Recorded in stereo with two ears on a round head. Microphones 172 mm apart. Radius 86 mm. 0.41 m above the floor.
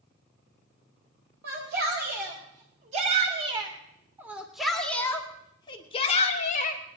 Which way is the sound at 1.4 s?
55° right (ahead or behind).